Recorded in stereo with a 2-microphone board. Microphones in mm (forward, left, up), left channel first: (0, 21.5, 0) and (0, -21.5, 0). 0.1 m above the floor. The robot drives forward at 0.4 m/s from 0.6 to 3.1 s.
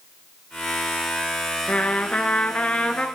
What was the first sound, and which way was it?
A trumpet, 30° left (ahead or behind).